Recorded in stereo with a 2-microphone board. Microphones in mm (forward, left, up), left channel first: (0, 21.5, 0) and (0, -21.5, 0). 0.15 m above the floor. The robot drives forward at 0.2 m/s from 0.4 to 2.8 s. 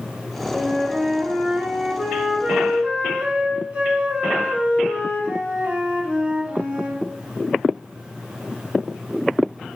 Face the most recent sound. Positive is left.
turn(degrees=-35)  # may be behind; listen again after turning